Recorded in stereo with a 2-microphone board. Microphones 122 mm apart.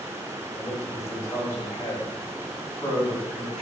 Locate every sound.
0.6 s a man speaking: 25° left (ahead or behind), 1.9 m; by 3.6 s 30° left (ahead or behind), 4 m